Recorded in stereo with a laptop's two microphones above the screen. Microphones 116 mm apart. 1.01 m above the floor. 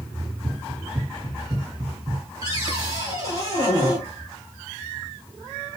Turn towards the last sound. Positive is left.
turn(degrees=-30)  # may be behind; listen again after turning